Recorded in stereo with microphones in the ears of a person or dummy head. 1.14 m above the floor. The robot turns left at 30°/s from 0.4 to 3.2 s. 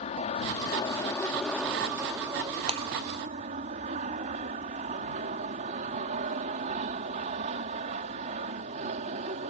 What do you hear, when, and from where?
0.0 s an aircraft: 40° left; by 9.5 s 45° right
2.7 s breaking glass: 35° right (ahead or behind); by 2.9 s 25° right (ahead or behind)